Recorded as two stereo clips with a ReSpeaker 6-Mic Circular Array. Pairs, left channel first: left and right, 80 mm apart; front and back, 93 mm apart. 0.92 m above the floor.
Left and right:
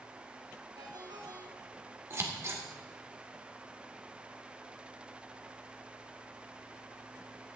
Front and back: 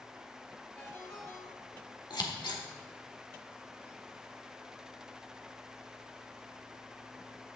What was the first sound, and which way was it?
A ringtone, 60° right.